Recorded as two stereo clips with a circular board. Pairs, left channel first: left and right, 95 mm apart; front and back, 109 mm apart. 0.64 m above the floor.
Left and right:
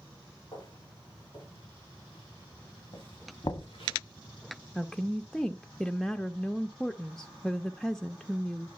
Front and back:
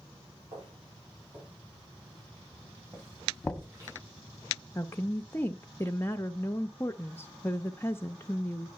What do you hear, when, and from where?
0.5 s footsteps: 145° left, 7 m; by 4.0 s 115° left, 7 m
3.4 s knocking: 80° left, 1.0 m
4.8 s a woman speaking: 10° left, 0.5 m